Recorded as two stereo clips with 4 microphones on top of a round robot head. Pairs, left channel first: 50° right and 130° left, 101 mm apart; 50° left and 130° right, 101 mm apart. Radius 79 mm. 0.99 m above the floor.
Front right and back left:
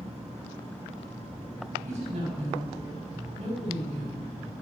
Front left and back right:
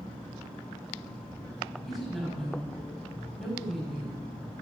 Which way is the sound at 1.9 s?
140° left.